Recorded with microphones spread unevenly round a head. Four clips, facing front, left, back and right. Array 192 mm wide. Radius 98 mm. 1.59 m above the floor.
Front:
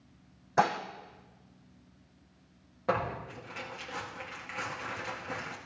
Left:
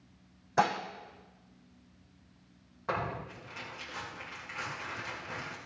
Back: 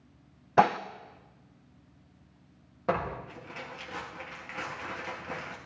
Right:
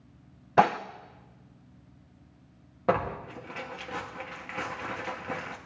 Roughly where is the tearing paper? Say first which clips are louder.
Right 7 dB, back 1 dB; right.